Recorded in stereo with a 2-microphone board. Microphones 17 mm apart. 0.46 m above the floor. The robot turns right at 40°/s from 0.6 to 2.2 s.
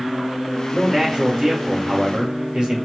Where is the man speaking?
150° right, 1.8 m; by 2.9 s 90° right, 1.8 m.